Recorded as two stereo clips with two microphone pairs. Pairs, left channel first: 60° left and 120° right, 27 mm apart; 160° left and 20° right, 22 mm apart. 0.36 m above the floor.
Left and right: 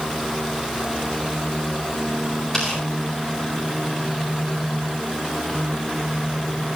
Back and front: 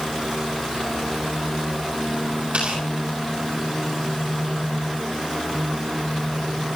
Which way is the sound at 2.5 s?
10° right.